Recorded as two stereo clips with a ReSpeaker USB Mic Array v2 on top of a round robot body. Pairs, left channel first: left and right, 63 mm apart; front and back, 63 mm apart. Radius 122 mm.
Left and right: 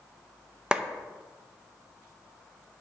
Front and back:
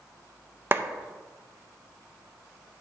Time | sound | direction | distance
0.7 | a clap | 155° right | 0.7 m